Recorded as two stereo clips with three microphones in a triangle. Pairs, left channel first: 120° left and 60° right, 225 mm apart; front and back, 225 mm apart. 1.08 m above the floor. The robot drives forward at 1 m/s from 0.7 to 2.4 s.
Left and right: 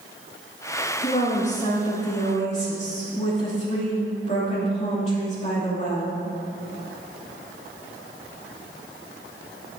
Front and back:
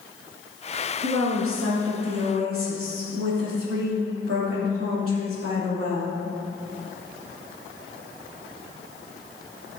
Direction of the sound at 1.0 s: 175° left.